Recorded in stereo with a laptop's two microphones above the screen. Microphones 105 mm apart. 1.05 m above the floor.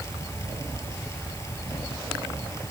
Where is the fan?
25° left (ahead or behind).